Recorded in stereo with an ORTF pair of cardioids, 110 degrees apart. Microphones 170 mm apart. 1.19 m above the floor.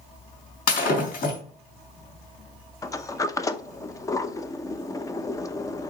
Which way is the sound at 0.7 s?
60° left.